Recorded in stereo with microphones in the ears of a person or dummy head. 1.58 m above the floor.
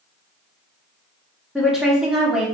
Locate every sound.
1.6 s a woman speaking: centre (ahead or behind), 0.8 m